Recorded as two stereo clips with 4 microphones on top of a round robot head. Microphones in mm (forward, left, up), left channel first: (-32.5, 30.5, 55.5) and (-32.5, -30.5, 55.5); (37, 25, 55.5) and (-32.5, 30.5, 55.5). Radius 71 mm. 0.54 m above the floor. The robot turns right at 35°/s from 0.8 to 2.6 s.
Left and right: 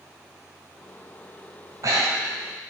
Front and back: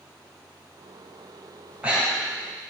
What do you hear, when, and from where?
1.7 s breathing: 120° right, 3.5 m; by 2.4 s 95° right, 3.5 m